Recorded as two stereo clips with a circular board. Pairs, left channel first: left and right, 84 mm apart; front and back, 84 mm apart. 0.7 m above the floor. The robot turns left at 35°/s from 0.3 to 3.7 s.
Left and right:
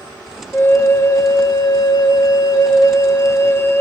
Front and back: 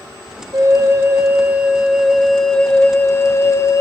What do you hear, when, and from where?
0.5 s a flute: 150° left, 1.1 m; by 3.8 s 35° left, 1.1 m